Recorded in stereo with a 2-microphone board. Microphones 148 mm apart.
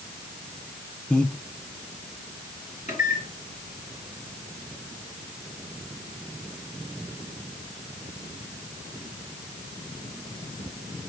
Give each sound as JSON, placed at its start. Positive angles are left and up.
{"t": 1.1, "sound": "breathing", "side_deg": 10, "distance_m": 0.5}
{"t": 2.9, "sound": "a microwave", "side_deg": 50, "distance_m": 3.0}